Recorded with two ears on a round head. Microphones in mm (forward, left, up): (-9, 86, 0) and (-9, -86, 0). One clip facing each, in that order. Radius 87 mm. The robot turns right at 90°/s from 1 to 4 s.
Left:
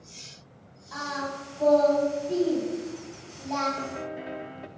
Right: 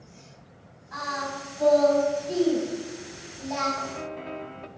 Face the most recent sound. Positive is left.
turn(degrees=10)  # may be behind; listen again after turning